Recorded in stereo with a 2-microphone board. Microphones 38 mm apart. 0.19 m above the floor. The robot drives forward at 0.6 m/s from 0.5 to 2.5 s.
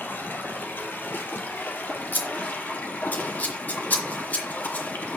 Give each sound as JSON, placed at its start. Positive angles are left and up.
{"t": 0.0, "sound": "running water", "side_deg": 75, "distance_m": 2.5}
{"t": 2.1, "sound": "scissors", "side_deg": 55, "distance_m": 3.0}